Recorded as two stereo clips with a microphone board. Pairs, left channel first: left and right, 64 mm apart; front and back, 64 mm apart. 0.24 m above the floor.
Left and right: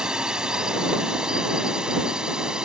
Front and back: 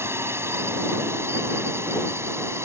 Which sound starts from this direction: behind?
A drone, at 0.0 s.